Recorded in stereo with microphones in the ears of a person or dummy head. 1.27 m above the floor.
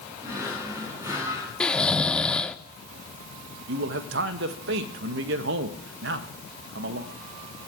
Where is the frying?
No frying in this recording.